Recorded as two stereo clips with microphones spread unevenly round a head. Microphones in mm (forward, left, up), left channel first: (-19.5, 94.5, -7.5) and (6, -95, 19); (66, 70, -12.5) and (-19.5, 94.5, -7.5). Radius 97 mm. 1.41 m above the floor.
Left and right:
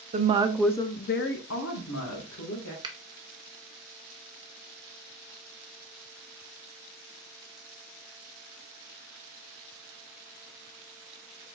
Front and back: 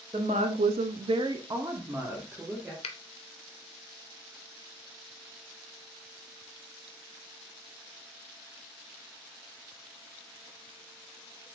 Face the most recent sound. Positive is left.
turn(degrees=-15)